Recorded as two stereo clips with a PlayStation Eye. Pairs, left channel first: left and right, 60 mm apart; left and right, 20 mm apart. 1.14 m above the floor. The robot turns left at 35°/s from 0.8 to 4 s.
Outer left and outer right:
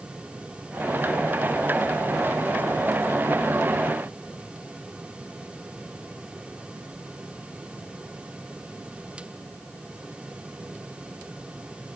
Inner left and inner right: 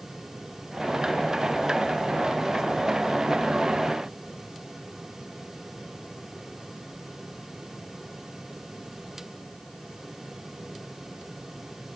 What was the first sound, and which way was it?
Only background noise.